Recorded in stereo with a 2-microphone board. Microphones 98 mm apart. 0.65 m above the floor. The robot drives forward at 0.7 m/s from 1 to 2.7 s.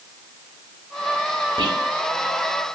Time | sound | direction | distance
1.6 | whispering | 60° right (ahead or behind) | 2.5 m